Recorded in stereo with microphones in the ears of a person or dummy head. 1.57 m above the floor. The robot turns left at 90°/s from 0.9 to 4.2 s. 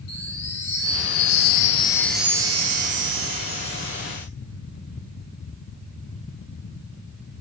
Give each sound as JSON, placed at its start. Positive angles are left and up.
{"t": 0.1, "sound": "a chime", "azimuth_deg": 110, "distance_m": 2.5}